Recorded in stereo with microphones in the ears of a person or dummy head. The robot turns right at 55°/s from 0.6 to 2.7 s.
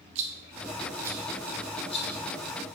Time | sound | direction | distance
0.1 | a rattle | 40° right (ahead or behind) | 1.3 m